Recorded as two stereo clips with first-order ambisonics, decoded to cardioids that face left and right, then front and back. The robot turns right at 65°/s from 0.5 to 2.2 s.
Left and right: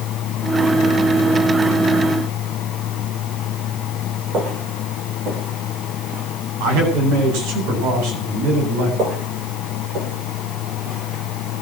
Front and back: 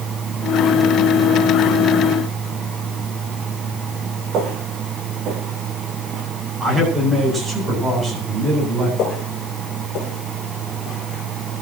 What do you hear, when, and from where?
4.3 s footsteps: 135° right, 7.5 m; by 6.2 s 125° right, 6.5 m
6.6 s a man speaking: 100° right, 10 m
9.0 s footsteps: 45° right, 6.5 m; by 11.6 s 40° right, 5 m